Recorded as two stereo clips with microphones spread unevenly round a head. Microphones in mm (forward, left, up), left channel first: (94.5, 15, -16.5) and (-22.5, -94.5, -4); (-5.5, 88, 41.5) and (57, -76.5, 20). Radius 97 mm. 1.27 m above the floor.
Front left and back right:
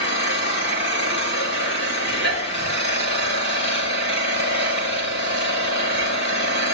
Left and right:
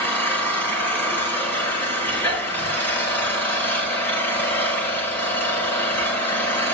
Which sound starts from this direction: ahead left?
An engine running, at 0.0 s.